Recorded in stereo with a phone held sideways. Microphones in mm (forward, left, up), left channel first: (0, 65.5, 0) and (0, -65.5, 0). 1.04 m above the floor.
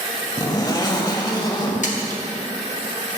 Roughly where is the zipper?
Left.